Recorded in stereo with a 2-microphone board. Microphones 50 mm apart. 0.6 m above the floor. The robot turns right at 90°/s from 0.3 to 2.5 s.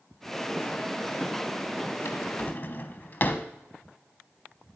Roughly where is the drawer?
Left.